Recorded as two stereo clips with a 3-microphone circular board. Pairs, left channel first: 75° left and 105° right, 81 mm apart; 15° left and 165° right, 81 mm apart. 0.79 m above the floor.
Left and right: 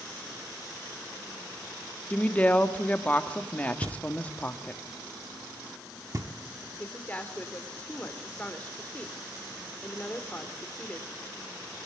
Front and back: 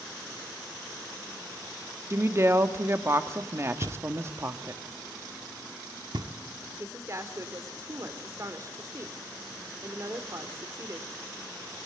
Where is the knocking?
150° right, 1.7 m.